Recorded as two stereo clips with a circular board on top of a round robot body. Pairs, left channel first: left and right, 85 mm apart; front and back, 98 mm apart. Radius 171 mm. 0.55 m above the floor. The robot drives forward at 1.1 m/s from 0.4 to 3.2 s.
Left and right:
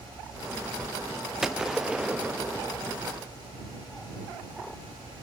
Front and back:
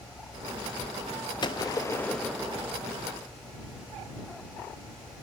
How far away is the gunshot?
About 1.4 m.